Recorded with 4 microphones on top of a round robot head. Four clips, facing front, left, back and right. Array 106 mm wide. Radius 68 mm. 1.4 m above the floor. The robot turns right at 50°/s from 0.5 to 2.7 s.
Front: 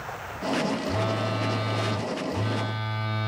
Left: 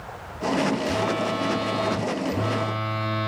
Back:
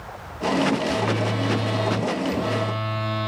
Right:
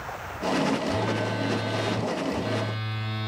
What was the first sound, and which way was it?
A phone buzzing, 45° left.